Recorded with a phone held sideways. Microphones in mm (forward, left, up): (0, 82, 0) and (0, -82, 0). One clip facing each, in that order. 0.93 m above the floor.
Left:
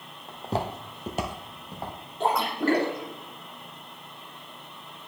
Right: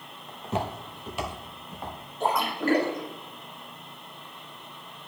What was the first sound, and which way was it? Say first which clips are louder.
Footsteps: left 1 dB; 25° left (ahead or behind).